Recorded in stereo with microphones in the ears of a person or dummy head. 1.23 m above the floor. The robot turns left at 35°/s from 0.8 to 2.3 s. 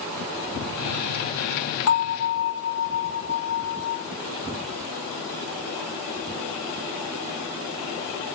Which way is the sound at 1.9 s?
80° left.